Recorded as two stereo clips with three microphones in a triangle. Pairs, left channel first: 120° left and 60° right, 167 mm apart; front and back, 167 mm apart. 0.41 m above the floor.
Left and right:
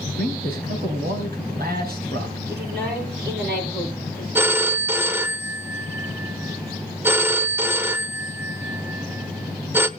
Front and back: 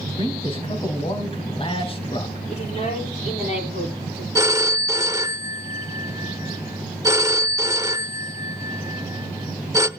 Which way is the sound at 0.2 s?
55° right.